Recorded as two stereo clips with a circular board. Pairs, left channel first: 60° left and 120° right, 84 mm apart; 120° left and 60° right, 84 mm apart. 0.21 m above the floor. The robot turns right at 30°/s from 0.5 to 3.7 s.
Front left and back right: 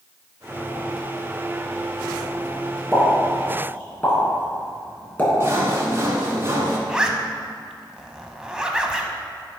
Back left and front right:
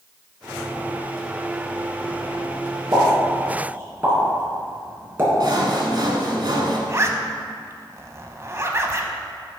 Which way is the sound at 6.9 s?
45° right.